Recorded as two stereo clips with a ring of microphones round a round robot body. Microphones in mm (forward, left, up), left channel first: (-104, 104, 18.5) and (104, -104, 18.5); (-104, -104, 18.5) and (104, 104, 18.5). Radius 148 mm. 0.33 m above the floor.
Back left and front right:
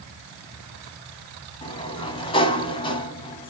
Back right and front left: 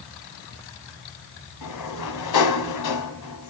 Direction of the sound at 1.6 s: 150° right.